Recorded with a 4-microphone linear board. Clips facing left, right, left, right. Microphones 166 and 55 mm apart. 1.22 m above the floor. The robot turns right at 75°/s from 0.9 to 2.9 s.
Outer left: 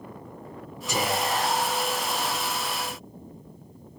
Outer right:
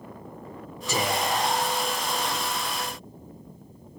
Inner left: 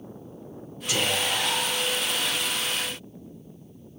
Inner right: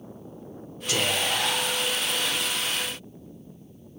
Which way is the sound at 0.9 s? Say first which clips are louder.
Even, even; straight behind.